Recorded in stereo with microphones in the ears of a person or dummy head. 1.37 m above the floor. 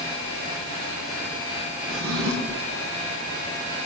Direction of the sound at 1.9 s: 80° right.